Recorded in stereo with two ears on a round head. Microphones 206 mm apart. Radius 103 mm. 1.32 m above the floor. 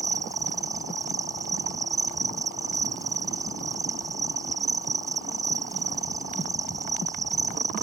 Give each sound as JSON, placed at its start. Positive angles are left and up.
{"t": 0.0, "sound": "an insect", "side_deg": -15}